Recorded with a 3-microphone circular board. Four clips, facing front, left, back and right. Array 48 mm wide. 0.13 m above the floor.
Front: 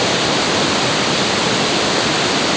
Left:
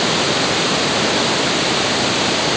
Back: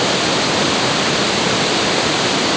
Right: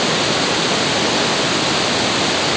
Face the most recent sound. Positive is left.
No sound to turn to.